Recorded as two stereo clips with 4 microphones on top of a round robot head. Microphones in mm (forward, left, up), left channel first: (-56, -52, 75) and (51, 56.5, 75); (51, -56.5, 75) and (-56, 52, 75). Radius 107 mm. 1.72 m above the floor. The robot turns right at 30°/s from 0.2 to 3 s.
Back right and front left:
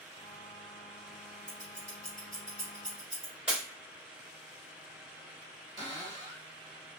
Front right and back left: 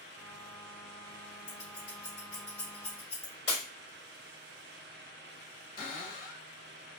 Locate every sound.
1.5 s scissors: 75° right, 1.5 m; by 3.3 s 25° right, 1.5 m
3.5 s breaking glass: 40° right, 2.5 m
5.8 s a cupboard door: 5° right, 2.5 m